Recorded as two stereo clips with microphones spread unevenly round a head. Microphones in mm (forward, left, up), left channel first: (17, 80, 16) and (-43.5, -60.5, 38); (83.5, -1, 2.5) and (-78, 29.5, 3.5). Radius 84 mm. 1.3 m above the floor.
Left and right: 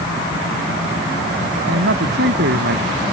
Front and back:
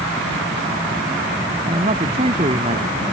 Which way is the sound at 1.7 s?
130° right.